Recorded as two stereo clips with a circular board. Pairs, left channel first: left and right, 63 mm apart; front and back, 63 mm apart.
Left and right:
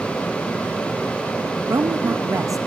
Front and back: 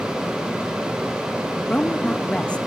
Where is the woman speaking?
70° right, 0.8 m.